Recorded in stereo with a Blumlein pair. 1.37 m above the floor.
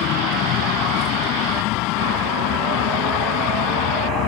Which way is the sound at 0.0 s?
35° left.